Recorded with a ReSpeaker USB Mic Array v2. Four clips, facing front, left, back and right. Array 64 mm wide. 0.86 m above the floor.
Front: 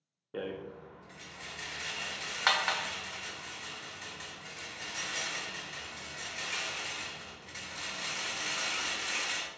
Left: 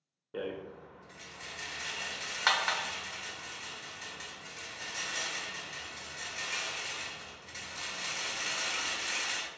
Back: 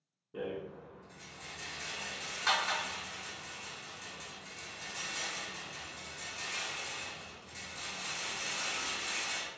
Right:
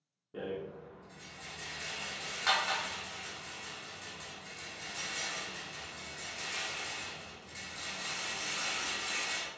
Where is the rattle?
30° left, 0.6 m.